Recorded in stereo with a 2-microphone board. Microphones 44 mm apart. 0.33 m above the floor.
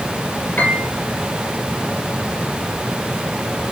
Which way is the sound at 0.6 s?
45° left (ahead or behind).